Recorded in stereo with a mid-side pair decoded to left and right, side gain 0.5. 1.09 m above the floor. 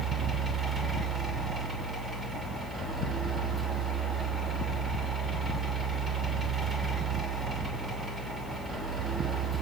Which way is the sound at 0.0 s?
40° right.